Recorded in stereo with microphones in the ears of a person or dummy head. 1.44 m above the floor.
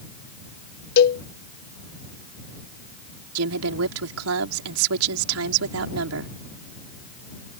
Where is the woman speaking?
85° right.